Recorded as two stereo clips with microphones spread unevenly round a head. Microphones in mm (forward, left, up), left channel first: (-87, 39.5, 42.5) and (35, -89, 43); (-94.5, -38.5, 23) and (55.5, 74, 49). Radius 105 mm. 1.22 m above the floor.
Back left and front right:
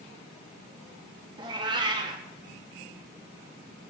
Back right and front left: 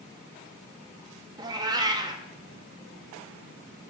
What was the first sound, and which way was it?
A cat meowing, 5° left.